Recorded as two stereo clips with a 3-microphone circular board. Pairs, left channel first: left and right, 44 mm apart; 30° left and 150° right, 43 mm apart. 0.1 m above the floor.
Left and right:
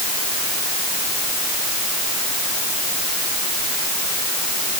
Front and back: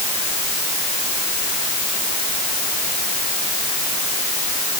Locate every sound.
Only background noise.